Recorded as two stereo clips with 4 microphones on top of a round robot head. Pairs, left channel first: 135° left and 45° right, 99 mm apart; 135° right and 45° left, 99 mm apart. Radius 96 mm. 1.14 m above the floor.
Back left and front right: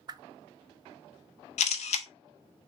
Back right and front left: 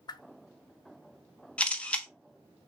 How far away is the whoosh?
About 0.6 m.